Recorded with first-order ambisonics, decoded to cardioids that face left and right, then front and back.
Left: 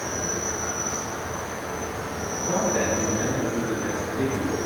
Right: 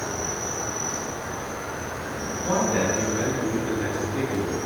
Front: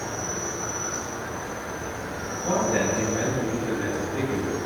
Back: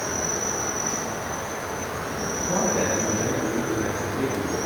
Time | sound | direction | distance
0.0 | an insect | straight behind | 2.0 m
2.4 | a man speaking | 30° right | 4.5 m